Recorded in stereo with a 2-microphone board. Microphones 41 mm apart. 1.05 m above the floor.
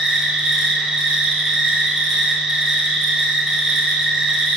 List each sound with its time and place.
0.0 s an insect: 10° right (ahead or behind), 3 m